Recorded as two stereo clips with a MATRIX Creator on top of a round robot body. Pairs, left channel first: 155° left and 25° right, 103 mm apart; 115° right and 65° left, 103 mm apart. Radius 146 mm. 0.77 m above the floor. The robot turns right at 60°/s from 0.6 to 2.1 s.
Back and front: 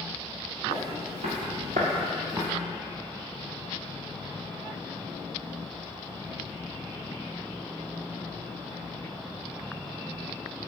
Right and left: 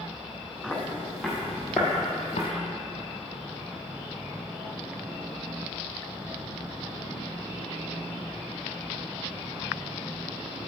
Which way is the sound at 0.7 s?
45° right.